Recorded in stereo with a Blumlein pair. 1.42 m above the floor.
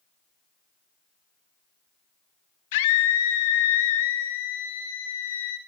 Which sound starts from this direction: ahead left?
A scream, at 2.7 s.